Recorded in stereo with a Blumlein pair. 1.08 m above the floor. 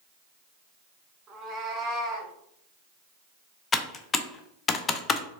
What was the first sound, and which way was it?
A cat meowing, 20° right.